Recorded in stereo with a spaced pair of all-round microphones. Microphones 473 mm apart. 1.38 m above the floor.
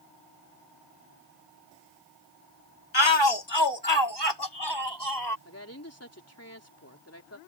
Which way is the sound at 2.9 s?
70° left (ahead or behind).